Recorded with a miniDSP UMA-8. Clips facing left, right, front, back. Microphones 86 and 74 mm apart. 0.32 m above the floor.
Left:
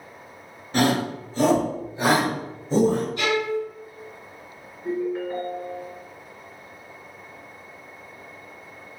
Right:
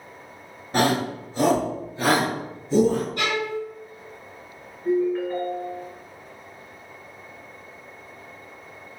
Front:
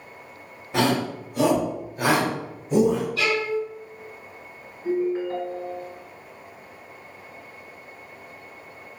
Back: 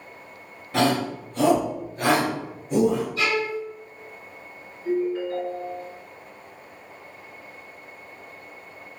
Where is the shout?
70° right, 1.0 m; by 3.1 s 90° left, 1.2 m.